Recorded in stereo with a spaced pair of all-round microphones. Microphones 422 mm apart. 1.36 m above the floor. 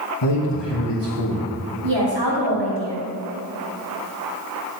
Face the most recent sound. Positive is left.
turn(degrees=-85)